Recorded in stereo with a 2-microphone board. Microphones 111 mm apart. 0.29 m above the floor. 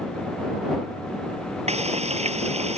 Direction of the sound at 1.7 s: 75° right (ahead or behind).